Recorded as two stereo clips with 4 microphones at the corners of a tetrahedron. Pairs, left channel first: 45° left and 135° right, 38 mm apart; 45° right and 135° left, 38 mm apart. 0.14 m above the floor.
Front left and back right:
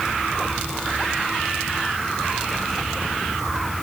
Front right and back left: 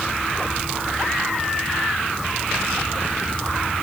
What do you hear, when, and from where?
Only background noise.